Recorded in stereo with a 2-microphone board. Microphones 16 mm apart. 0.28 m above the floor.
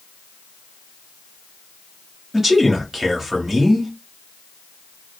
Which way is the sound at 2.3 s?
30° right (ahead or behind).